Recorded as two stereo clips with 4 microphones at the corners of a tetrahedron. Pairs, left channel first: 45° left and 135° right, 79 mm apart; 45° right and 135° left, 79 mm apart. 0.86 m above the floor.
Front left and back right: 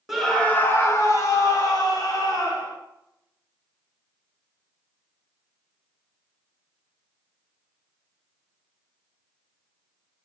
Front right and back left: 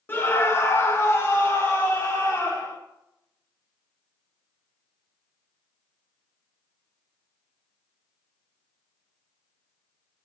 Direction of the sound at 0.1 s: 50° right.